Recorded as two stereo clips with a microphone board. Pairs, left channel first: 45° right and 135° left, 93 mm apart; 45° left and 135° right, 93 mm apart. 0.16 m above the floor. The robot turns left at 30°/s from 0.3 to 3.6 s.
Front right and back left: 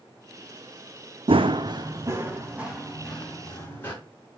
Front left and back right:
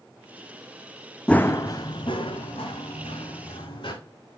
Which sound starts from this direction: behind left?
Running footsteps, at 1.3 s.